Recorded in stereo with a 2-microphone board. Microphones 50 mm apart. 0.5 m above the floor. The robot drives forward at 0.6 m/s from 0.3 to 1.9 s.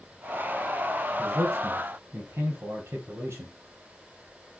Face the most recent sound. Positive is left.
turn(degrees=-65)  # may be behind; listen again after turning